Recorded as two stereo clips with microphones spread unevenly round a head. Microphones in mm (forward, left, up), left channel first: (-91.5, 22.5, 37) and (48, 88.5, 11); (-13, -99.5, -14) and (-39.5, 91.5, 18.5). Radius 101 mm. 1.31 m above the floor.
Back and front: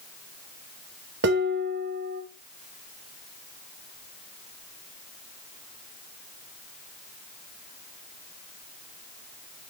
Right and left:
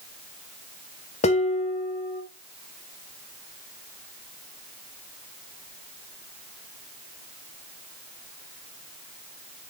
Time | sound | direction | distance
1.2 | dishes clattering | 20° right | 1.2 m